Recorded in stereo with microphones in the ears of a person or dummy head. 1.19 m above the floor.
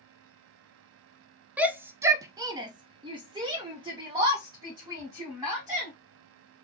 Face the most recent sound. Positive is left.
turn(degrees=-15)  # may be behind; listen again after turning